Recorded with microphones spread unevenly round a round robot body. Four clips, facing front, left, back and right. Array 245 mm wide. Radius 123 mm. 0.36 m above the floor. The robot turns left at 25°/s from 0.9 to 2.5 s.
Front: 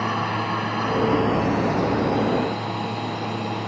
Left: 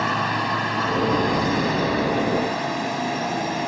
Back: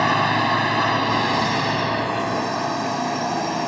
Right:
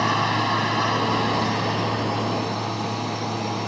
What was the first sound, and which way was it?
A drone, 175° right.